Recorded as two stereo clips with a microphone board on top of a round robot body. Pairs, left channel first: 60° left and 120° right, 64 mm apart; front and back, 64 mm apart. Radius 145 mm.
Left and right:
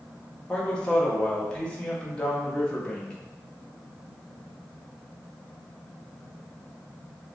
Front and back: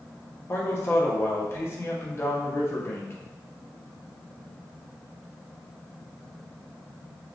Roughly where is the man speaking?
Ahead.